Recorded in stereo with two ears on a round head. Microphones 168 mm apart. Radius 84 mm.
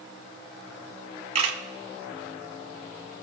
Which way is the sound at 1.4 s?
30° right (ahead or behind).